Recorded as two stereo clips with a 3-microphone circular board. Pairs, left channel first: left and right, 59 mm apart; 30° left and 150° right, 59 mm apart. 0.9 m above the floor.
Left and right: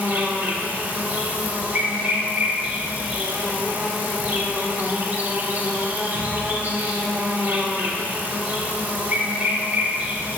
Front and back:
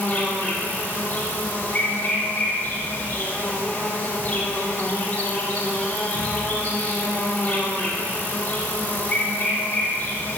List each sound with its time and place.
0.0 s an insect: 35° right, 4 m